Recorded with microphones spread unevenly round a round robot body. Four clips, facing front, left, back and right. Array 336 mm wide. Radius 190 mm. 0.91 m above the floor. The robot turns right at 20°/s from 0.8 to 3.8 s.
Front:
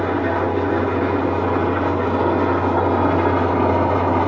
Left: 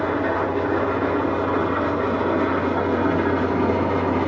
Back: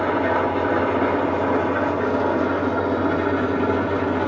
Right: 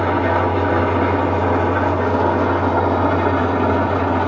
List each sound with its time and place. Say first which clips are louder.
0.0 s an engine running: right 5 dB, even; 85° right, 1.2 m; by 4.3 s 25° right, 1.2 m